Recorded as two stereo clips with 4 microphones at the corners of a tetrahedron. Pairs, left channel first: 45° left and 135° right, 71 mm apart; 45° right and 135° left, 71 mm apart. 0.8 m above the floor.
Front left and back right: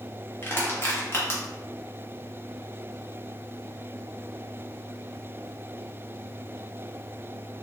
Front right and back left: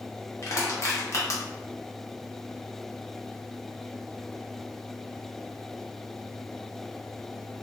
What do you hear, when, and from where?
0.4 s crushing: 5° right, 0.7 m